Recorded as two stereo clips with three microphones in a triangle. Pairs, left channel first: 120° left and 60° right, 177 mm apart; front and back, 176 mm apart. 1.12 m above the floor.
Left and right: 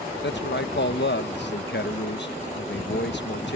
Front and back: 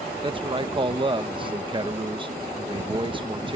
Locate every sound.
0.2 s a man speaking: 115° left